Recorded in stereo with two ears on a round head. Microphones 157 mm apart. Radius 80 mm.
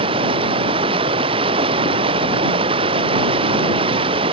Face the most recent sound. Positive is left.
turn(degrees=-30)  # may be behind; listen again after turning